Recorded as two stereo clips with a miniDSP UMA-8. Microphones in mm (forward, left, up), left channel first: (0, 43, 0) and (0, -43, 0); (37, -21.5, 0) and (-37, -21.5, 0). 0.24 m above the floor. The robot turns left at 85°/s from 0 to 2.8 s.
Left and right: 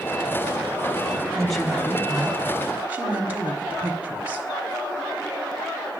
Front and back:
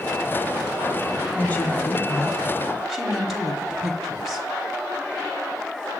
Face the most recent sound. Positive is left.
turn(degrees=-105)